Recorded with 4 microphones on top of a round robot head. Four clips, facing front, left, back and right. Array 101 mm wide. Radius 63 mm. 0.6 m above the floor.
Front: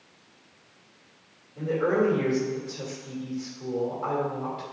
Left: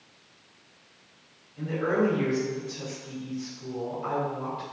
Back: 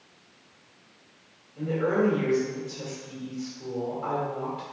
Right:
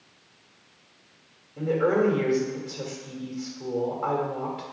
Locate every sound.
1.6 s a woman speaking: 75° right, 1.9 m